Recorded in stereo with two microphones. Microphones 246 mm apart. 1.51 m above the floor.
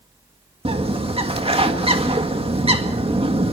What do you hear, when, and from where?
0.7 s a bird: 25° right (ahead or behind), 2.0 m